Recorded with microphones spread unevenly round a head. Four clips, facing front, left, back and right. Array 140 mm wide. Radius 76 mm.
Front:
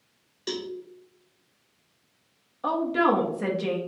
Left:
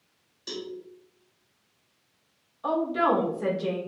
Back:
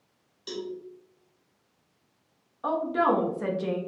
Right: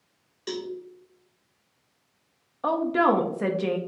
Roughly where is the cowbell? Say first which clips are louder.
Right 4 dB, front 3 dB; ahead right.